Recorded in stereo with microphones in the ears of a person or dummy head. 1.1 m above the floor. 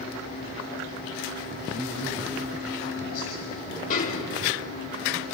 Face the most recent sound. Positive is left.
turn(degrees=45)  # may be behind; listen again after turning